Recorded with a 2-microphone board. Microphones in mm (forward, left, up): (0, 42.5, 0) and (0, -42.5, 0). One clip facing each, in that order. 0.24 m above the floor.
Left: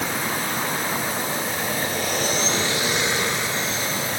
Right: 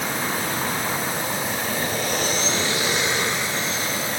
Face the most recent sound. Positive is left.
No sound to turn to.